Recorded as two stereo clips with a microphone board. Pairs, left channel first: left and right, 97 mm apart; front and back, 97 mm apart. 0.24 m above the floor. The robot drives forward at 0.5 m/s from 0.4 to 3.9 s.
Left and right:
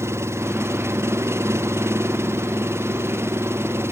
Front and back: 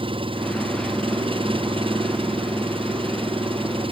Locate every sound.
0.0 s an engine running: 150° right; by 3.9 s 155° right